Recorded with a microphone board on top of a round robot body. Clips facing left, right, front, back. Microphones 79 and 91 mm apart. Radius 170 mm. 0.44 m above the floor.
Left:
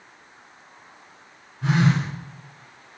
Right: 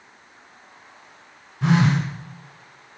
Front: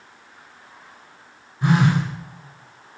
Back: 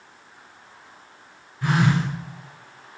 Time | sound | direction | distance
1.6 | a phone buzzing | 70° right | 0.6 m